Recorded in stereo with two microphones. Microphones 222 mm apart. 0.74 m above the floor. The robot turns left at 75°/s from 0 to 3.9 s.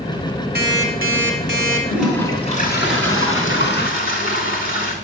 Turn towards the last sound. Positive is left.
turn(degrees=45)